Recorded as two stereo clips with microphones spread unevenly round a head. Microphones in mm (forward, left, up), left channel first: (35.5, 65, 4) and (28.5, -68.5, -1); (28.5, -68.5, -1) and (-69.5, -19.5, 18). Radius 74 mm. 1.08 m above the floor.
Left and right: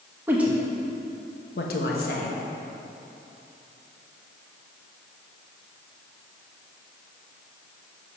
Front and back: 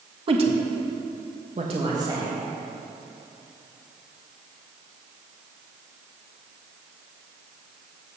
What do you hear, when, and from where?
0.3 s a woman speaking: 170° right, 1.2 m; by 2.4 s 75° left, 1.6 m